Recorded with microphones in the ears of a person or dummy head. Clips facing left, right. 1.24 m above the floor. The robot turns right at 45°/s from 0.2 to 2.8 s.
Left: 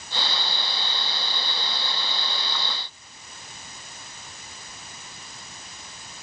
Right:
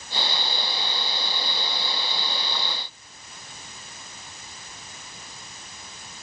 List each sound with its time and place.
Only background noise.